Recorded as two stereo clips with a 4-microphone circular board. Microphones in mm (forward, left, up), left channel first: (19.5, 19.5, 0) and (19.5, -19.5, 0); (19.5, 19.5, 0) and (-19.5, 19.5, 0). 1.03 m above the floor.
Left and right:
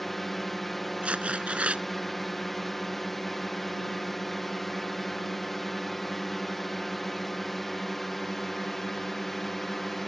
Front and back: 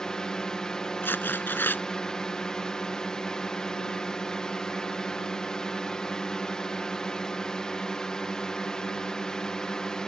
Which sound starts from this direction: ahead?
A drone, at 0.0 s.